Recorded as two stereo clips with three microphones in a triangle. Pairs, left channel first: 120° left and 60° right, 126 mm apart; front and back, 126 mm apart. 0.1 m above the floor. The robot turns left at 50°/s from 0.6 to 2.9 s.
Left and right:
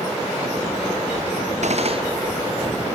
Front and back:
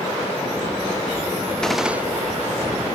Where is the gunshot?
85° right; by 2.0 s 105° right.